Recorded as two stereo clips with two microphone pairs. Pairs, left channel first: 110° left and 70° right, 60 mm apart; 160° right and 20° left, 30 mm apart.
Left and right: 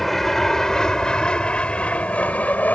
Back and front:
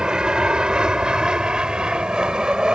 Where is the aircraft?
30° left; by 2.8 s 65° left.